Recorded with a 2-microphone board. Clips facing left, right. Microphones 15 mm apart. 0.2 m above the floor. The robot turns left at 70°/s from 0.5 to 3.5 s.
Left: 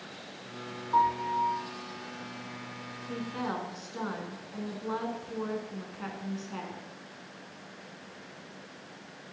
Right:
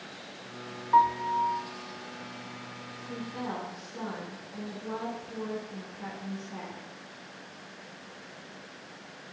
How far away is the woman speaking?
About 1.7 m.